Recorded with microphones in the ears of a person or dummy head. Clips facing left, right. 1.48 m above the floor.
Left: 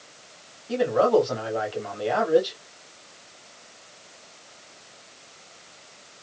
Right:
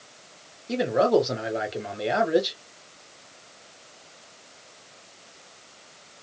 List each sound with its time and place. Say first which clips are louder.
0.7 s a man speaking: left 1 dB; 30° right (ahead or behind), 1.7 m